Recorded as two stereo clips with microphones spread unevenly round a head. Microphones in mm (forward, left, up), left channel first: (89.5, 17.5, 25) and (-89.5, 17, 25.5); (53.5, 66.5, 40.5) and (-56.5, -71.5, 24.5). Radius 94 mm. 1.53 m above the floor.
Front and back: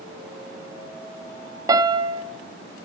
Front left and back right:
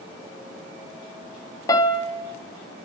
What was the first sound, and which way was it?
A piano, 115° left.